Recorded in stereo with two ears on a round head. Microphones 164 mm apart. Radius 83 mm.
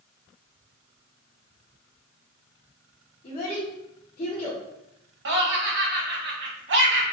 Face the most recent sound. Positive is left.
turn(degrees=-70)  # may be behind; listen again after turning